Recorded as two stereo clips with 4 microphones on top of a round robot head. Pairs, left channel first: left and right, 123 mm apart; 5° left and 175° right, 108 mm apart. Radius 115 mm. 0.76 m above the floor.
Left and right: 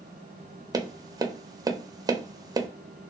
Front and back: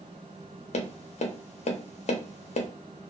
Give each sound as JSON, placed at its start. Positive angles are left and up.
{"t": 0.7, "sound": "tapping", "azimuth_deg": -25, "distance_m": 0.5}